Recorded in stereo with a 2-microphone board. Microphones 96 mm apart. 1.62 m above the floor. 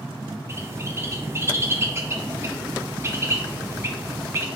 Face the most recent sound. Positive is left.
turn(degrees=-30)  # may be behind; listen again after turning